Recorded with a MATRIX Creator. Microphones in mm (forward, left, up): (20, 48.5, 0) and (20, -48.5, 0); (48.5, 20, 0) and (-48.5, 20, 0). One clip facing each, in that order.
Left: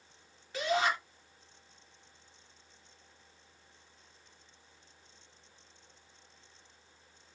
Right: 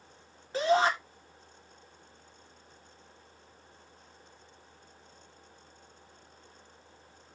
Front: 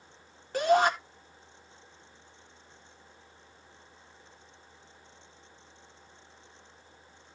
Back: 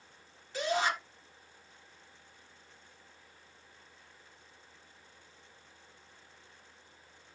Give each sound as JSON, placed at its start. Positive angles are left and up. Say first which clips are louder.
{"t": 0.5, "sound": "a shout", "louder": "right 5 dB, front 8 dB", "azimuth_deg": -35, "distance_m": 3.5}